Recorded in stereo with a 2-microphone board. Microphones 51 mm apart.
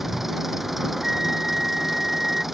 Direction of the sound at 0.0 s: 5° right (ahead or behind).